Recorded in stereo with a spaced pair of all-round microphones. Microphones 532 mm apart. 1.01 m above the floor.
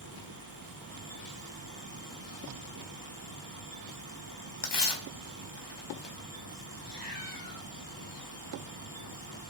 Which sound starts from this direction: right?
A fan, at 0.0 s.